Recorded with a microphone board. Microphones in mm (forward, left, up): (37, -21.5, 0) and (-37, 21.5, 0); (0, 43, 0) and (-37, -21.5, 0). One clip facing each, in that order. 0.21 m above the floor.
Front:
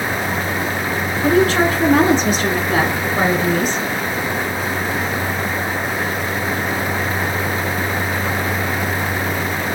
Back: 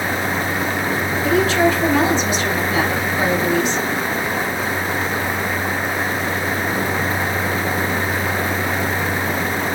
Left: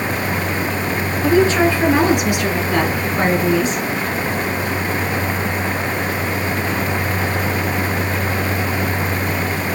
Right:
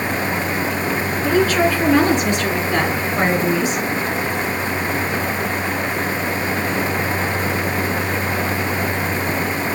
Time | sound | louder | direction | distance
1.2 | a woman speaking | front 2 dB, left 3 dB | 5° left | 3 m